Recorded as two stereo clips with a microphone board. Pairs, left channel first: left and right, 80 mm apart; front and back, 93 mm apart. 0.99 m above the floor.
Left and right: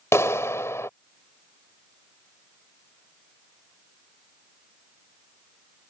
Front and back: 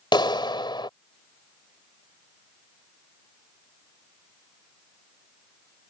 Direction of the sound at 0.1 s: 35° left.